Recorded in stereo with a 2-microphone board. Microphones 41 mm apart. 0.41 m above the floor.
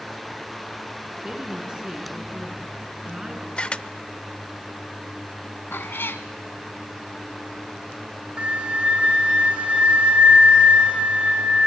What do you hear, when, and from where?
1.2 s a woman speaking: 15° right (ahead or behind), 4.5 m
3.6 s a camera shutter: 25° left (ahead or behind), 0.5 m
5.7 s a cat meowing: 65° left (ahead or behind), 1.2 m
8.4 s a flute: 30° right (ahead or behind), 3 m